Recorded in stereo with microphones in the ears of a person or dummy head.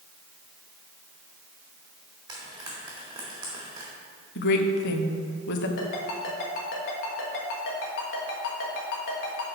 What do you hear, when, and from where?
2.3 s frying: 20° right (ahead or behind), 1.8 m
4.3 s a woman speaking: 55° left (ahead or behind), 0.7 m
5.8 s a ringtone: 55° left (ahead or behind), 1.4 m